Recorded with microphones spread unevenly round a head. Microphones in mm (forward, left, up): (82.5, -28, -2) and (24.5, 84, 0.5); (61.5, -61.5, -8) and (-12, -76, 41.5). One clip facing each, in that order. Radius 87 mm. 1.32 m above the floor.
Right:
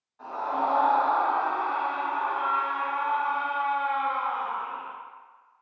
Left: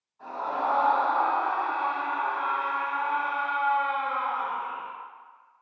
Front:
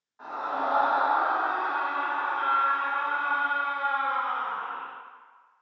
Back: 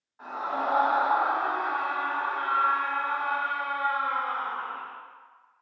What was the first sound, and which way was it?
A scream, 70° right.